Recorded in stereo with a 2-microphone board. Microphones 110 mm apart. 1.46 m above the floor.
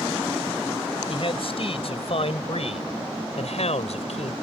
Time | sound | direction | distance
1.1 | a man speaking | 55° left (ahead or behind) | ?